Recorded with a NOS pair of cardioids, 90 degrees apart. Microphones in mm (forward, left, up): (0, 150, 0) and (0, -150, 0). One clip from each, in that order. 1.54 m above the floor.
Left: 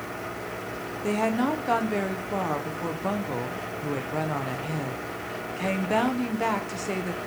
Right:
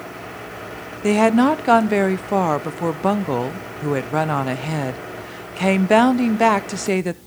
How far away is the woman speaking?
About 0.6 m.